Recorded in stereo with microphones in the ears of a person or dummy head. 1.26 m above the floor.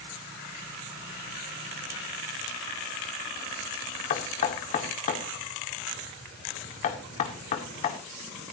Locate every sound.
4.1 s knocking: 40° left (ahead or behind), 1.9 m